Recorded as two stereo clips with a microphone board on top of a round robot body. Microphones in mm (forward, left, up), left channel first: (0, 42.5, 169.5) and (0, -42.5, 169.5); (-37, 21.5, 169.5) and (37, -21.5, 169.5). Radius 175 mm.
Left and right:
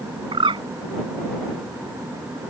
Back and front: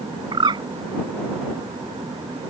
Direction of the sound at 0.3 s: 65° right.